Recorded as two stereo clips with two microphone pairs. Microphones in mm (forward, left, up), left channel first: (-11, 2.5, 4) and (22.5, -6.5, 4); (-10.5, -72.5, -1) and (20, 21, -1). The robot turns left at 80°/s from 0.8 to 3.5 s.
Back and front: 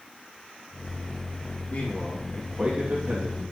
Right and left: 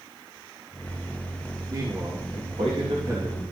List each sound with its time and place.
1.7 s a man speaking: 130° left, 3 m; by 3.4 s 10° right, 3 m